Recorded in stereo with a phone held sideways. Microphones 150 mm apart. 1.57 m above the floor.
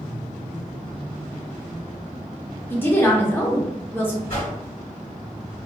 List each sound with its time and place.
2.7 s a woman speaking: 15° left (ahead or behind), 0.8 m
4.3 s a whoosh: 70° left (ahead or behind), 1.7 m